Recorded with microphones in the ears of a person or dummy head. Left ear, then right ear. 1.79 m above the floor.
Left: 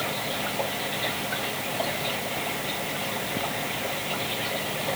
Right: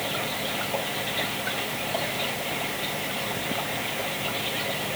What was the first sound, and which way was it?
Only background noise.